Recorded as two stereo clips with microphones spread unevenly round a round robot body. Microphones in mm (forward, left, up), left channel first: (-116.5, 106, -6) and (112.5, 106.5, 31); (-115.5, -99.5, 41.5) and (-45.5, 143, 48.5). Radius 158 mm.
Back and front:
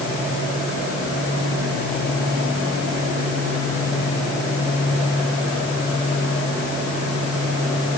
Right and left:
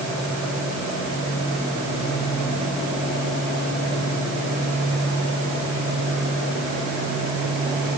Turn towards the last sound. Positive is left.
No sound to turn to.